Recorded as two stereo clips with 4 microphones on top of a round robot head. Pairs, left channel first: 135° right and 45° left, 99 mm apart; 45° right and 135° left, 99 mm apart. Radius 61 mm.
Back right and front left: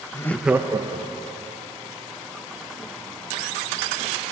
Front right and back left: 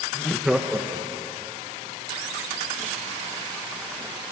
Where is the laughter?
105° right, 0.7 m; by 1.5 s 75° left, 1.8 m.